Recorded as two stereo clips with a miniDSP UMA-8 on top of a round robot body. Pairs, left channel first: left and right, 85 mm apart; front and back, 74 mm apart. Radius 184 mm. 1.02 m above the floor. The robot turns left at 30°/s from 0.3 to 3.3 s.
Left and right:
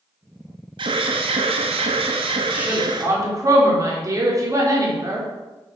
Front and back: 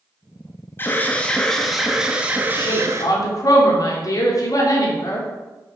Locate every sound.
0.8 s an alarm: 60° right, 0.8 m; by 3.1 s 130° right, 0.8 m
2.5 s a woman speaking: 15° right, 3 m; by 5.3 s 40° right, 3 m